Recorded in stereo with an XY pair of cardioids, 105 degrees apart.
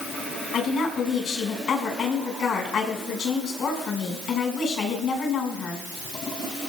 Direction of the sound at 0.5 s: 55° left.